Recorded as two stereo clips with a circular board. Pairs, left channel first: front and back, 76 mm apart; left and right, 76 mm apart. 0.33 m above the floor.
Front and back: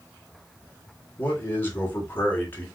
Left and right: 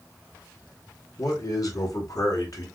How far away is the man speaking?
About 1.9 m.